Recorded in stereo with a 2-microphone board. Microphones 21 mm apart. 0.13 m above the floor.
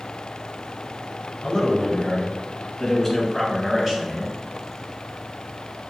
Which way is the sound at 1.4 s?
40° left (ahead or behind).